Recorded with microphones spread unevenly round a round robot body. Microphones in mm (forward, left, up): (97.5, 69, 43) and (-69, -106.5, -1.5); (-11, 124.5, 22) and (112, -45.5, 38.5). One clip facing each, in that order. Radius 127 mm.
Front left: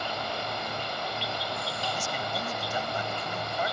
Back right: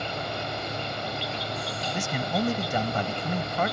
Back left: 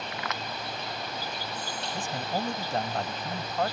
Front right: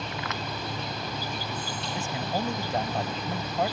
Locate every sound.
0.0 s an insect: 60° right
1.9 s a man speaking: 140° right